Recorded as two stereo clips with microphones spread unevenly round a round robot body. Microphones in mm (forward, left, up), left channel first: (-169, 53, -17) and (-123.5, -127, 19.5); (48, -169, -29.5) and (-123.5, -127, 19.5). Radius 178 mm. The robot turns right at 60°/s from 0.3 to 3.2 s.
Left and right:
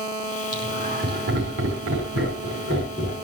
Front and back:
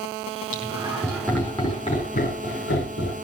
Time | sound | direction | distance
0.5 | laughter | 145° right | 5 m